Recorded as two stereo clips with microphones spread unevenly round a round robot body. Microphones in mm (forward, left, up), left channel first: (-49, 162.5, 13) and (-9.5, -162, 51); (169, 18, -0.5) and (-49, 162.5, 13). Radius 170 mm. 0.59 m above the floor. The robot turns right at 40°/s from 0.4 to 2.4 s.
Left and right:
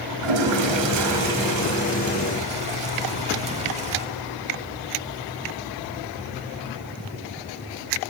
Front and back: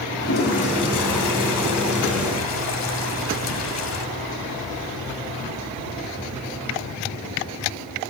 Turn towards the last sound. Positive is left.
turn(degrees=-10)